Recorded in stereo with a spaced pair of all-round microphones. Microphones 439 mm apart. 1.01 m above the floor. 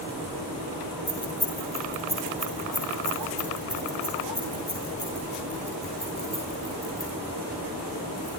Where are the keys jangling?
65° left (ahead or behind), 7.5 m; by 8.3 s 45° left (ahead or behind), 13.5 m.